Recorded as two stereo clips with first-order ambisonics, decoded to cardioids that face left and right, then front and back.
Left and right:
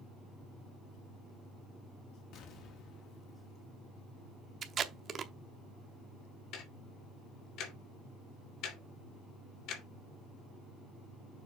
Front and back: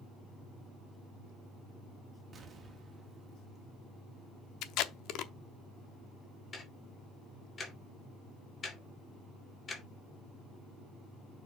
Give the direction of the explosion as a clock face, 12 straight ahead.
8 o'clock.